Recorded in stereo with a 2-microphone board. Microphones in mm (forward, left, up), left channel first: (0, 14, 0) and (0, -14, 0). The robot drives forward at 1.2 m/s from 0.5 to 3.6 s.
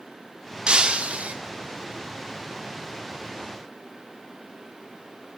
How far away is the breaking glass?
About 2 m.